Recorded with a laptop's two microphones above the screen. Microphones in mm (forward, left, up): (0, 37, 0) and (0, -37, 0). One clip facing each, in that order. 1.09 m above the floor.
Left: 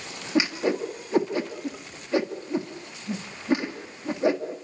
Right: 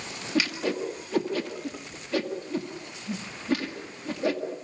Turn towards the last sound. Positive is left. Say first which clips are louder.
# left 3 dB
turn(degrees=20)  # may be behind; listen again after turning